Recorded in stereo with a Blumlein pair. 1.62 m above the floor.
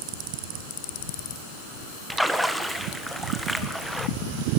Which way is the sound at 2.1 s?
Straight ahead.